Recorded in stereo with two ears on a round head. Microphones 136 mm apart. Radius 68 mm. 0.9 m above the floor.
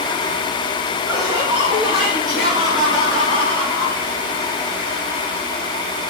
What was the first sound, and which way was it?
Laughter, 20° right (ahead or behind).